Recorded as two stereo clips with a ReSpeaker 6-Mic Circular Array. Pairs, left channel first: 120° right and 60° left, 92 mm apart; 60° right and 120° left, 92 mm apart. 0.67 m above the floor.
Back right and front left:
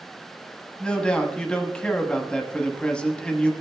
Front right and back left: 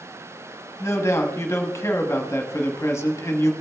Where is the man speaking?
50° right, 1.0 m.